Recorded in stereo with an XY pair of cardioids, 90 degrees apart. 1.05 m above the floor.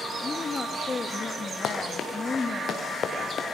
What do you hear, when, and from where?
0.2 s a woman speaking: 40° left, 1.6 m
1.6 s running footsteps: 65° left, 4 m